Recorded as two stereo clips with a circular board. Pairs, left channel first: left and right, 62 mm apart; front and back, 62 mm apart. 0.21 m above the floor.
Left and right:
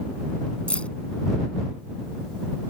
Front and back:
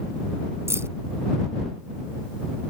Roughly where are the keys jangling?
Behind left.